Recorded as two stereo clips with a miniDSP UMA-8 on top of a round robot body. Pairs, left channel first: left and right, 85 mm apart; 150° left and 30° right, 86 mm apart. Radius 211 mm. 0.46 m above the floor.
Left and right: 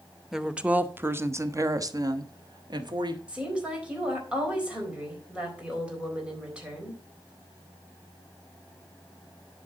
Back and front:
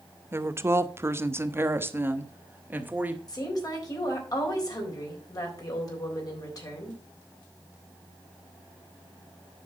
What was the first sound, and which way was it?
A woman speaking, 10° right.